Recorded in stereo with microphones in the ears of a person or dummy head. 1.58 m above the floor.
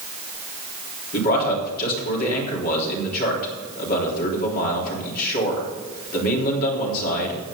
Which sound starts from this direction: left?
A man speaking, at 1.1 s.